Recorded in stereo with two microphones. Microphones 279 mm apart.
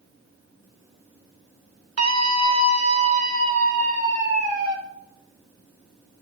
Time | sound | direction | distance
2.0 | a scream | 65° right (ahead or behind) | 0.9 m